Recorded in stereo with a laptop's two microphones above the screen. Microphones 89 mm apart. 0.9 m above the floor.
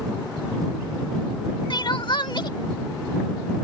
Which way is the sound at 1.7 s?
60° left (ahead or behind).